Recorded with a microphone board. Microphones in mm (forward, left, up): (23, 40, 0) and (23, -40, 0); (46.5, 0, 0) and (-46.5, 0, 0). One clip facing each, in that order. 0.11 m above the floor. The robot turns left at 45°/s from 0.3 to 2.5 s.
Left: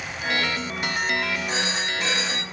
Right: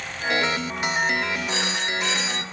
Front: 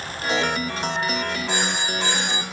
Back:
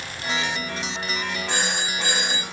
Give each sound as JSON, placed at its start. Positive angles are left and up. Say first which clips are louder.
{"t": 1.5, "sound": "a phone ringing", "louder": "even, front 1 dB", "azimuth_deg": 170, "distance_m": 2.5}